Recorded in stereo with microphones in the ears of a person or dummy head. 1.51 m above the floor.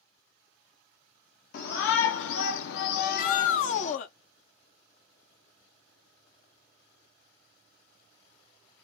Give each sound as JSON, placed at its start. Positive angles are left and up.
{"t": 1.5, "sound": "a shout", "side_deg": 50, "distance_m": 0.8}
{"t": 3.0, "sound": "a shout", "side_deg": 45, "distance_m": 0.5}